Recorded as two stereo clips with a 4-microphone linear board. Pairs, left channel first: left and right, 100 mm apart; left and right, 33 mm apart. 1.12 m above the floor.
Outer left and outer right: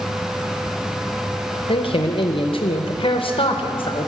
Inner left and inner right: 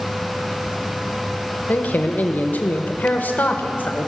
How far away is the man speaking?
About 0.8 m.